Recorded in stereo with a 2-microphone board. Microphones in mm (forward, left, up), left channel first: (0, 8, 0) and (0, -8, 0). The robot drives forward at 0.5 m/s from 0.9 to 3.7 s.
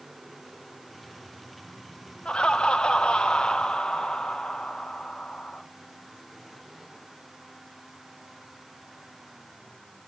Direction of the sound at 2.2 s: 80° left.